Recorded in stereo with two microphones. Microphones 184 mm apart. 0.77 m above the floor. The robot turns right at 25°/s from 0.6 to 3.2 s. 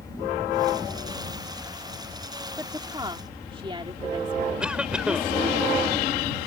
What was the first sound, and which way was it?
A woman speaking, 15° right (ahead or behind).